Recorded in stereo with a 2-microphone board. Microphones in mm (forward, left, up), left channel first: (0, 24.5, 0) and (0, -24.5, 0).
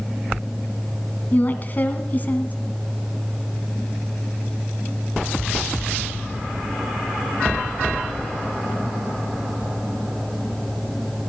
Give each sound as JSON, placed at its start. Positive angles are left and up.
{"t": 1.3, "sound": "a woman speaking", "side_deg": 35, "distance_m": 2.0}